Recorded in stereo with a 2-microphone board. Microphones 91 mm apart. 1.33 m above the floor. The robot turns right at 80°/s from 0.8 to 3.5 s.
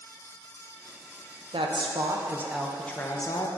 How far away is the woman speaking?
About 0.8 m.